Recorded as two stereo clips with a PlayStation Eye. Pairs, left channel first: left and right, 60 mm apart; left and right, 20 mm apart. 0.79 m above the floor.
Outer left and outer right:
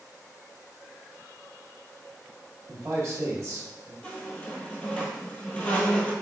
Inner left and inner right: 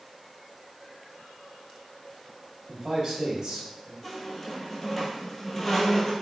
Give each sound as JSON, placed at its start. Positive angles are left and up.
{"t": 2.7, "sound": "a man speaking", "side_deg": -45, "distance_m": 1.3}
{"t": 4.0, "sound": "a squeak", "side_deg": 15, "distance_m": 1.0}